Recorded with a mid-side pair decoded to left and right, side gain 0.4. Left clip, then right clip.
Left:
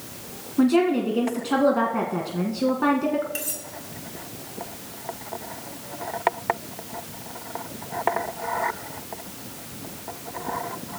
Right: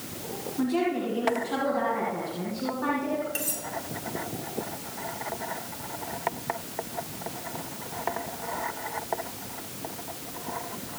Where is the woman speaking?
65° left, 2.0 m.